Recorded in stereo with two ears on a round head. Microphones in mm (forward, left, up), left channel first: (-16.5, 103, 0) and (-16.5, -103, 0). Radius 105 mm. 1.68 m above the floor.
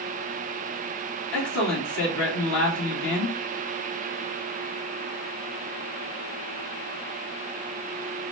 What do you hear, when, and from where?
1.3 s a man speaking: 65° left (ahead or behind), 3.5 m